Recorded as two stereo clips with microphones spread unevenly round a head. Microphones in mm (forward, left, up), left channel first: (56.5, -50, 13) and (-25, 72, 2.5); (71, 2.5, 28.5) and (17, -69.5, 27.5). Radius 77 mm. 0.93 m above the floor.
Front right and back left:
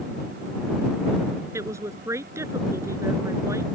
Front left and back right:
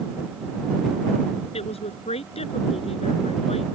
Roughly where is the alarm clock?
No alarm clock in this recording.